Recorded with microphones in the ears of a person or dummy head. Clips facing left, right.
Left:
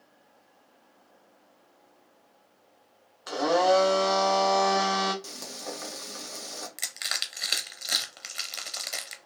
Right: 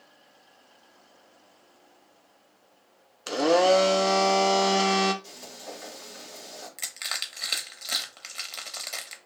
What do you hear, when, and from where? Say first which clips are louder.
3.3 s a blender: right 3 dB; 35° right (ahead or behind), 0.6 m
5.2 s frying: left 3 dB; 65° left (ahead or behind), 1.1 m
6.8 s crushing: even; 15° left (ahead or behind), 0.7 m